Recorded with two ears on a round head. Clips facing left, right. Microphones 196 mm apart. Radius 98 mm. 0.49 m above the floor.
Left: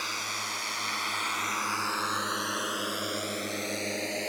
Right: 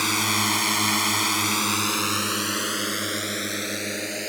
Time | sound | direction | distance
0.0 | a drone | 75° right (ahead or behind) | ?